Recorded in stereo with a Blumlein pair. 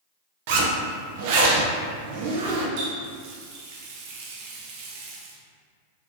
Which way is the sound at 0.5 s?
50° right.